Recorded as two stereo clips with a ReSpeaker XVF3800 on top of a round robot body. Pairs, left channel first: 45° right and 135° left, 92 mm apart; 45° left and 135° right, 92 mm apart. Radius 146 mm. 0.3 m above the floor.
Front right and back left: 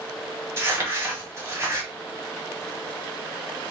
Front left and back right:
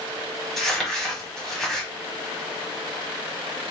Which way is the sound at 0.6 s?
130° left.